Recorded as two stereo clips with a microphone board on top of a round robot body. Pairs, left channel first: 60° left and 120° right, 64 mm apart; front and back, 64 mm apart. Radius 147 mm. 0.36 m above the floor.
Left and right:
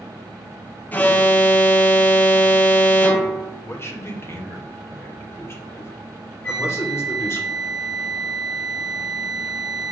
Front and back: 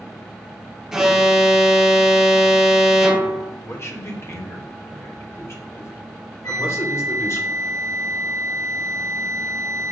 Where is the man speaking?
25° left, 2 m.